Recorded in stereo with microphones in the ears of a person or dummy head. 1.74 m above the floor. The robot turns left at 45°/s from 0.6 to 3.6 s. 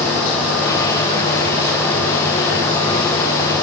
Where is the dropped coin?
No dropped coin in this recording.